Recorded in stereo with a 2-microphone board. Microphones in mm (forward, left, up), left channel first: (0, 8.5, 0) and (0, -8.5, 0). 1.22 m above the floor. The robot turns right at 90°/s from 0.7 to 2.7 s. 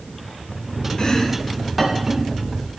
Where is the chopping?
55° left (ahead or behind), 2.5 m; by 2.2 s 50° right (ahead or behind), 2.5 m.